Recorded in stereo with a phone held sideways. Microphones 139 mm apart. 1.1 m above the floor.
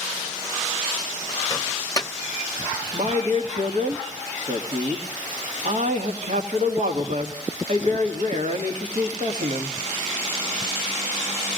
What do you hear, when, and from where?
1.5 s a microwave: 25° left (ahead or behind), 0.8 m
2.9 s a man speaking: 60° right (ahead or behind), 1.8 m